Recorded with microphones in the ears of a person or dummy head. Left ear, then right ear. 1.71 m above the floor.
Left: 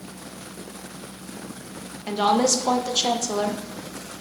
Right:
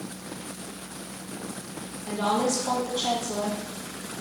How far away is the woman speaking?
About 1.1 m.